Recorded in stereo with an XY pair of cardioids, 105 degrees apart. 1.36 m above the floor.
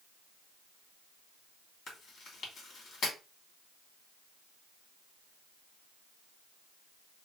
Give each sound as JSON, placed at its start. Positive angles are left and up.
{"t": 1.9, "sound": "chewing", "azimuth_deg": 65, "distance_m": 2.5}